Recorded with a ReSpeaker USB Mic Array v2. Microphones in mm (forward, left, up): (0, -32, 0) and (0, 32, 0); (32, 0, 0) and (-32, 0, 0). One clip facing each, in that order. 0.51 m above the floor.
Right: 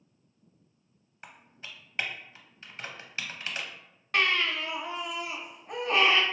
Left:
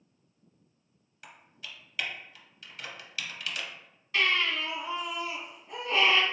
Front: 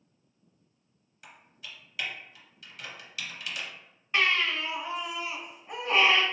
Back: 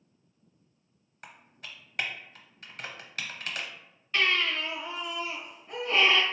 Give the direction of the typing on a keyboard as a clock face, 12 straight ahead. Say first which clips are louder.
Right 1 dB, back 1 dB; 5 o'clock.